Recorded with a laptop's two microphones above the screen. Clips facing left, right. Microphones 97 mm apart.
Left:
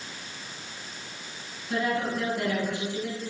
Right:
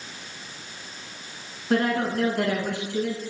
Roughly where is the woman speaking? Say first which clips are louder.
Right 5 dB; right.